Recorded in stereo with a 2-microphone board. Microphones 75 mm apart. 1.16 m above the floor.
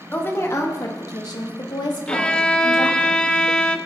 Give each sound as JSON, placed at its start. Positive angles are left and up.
{"t": 0.1, "sound": "a woman speaking", "side_deg": 25, "distance_m": 1.3}
{"t": 2.1, "sound": "a violin", "side_deg": 10, "distance_m": 0.6}